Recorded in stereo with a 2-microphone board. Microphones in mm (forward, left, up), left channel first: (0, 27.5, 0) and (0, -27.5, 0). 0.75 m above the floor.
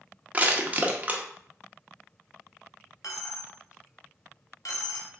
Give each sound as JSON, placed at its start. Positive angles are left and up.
{"t": 0.3, "sound": "crushing", "side_deg": -25, "distance_m": 0.6}
{"t": 3.0, "sound": "a dropped coin", "side_deg": 85, "distance_m": 0.8}